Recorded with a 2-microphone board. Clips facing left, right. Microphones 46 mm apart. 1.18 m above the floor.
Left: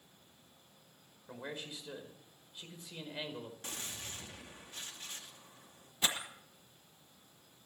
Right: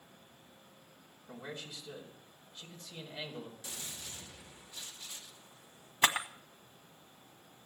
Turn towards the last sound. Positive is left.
turn(degrees=-55)  # may be behind; listen again after turning